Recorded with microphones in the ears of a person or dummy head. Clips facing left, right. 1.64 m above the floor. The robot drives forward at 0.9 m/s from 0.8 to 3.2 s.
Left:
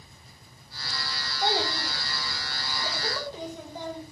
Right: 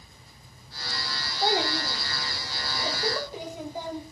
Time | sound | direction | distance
1.4 | a child speaking | 10° right (ahead or behind) | 3 m